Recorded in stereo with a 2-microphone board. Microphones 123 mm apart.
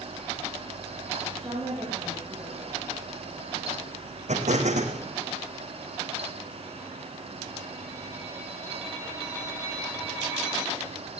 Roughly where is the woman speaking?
Right.